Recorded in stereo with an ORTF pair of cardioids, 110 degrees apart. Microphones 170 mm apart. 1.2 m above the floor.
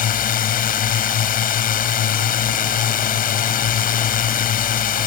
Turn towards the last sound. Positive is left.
turn(degrees=55)